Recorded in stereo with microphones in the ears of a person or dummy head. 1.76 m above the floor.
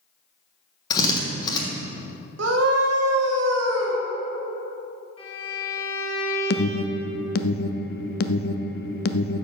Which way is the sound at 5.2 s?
30° left (ahead or behind).